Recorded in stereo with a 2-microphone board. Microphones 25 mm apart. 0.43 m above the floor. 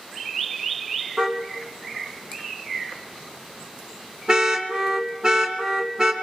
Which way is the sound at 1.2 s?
35° right (ahead or behind).